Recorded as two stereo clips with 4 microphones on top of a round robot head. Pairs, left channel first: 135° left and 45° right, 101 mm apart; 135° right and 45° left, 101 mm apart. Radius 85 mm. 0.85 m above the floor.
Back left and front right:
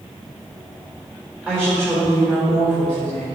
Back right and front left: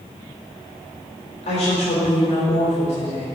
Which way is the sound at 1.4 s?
120° right.